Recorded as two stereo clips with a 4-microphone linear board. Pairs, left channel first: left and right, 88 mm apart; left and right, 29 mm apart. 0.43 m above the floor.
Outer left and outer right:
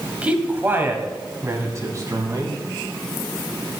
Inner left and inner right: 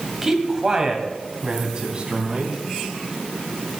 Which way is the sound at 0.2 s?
15° right (ahead or behind).